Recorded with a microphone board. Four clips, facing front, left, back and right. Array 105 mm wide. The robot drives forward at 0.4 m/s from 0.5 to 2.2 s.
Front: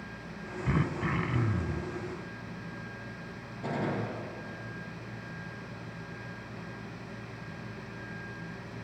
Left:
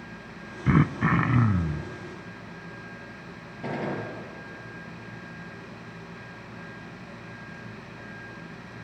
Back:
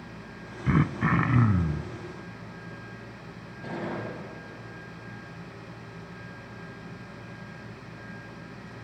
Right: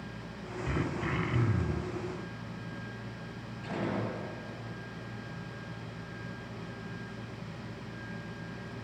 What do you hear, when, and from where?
0.7 s throat clearing: 110° left, 0.6 m; by 1.9 s 145° left, 0.9 m
3.6 s a gunshot: 85° left, 8.5 m